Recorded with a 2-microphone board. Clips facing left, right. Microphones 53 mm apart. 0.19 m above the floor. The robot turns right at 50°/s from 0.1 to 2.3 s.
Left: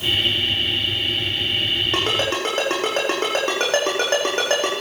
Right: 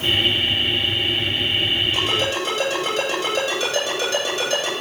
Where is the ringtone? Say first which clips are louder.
Even; 70° left (ahead or behind), 6.5 m; by 4.7 s 50° left (ahead or behind), 6.5 m.